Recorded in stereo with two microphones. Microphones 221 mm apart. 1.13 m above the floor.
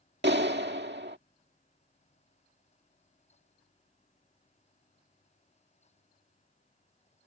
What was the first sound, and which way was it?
A clap, 55° right (ahead or behind).